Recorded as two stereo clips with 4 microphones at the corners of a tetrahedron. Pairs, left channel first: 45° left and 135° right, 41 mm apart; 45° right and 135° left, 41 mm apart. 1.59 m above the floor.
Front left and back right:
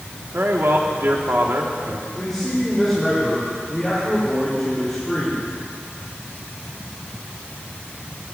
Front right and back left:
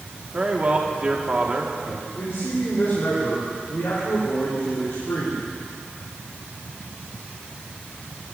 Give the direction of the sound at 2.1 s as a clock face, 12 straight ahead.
1 o'clock.